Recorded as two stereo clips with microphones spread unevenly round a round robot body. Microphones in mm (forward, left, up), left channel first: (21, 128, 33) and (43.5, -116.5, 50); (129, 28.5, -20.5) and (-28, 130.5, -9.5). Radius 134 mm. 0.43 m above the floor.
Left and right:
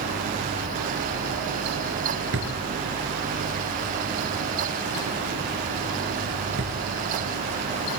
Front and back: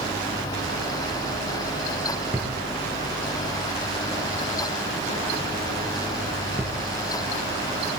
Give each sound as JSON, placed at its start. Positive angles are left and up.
{"t": 2.3, "sound": "a drawer", "azimuth_deg": -130, "distance_m": 4.0}